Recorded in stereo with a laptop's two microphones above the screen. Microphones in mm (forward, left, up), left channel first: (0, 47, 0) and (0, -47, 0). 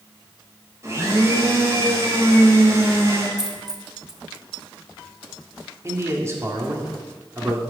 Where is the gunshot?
I don't hear a gunshot.